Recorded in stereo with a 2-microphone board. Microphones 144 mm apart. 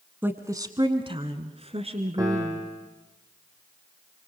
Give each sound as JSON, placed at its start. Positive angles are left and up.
{"t": 0.2, "sound": "a woman speaking", "side_deg": -15, "distance_m": 1.2}
{"t": 2.2, "sound": "a piano", "side_deg": -25, "distance_m": 3.5}